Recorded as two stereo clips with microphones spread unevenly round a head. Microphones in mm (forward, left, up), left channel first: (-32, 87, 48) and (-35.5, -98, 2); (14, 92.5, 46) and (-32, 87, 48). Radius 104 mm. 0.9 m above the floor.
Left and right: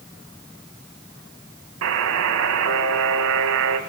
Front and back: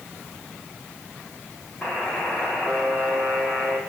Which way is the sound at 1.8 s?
75° right.